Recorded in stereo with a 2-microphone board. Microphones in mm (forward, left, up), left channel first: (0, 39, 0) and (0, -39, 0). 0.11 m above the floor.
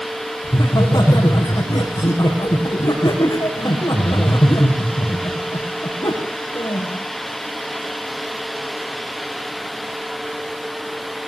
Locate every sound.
0.4 s laughter: 55° left (ahead or behind), 5.5 m